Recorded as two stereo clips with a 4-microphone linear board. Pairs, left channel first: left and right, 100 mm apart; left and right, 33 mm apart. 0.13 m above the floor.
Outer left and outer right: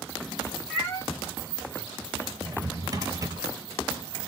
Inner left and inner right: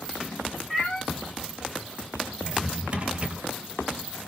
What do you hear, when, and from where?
0.7 s a cat meowing: 25° left (ahead or behind), 2.0 m
2.4 s a drawer: 35° right (ahead or behind), 0.9 m